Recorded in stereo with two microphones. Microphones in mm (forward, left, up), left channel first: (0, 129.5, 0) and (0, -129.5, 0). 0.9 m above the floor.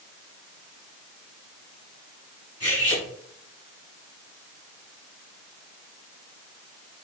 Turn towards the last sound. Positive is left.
turn(degrees=80)